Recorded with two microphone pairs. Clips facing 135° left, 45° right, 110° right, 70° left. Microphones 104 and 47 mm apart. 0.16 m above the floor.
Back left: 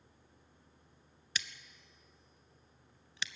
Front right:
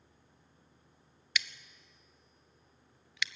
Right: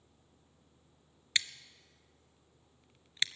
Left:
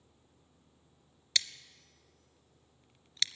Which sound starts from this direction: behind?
Scissors, at 1.4 s.